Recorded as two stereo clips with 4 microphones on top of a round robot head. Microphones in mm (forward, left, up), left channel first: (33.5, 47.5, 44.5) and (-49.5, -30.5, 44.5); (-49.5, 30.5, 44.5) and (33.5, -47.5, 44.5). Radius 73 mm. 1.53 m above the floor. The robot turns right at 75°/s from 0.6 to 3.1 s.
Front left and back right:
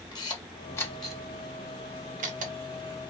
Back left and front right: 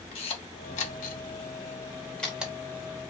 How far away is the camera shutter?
About 0.8 m.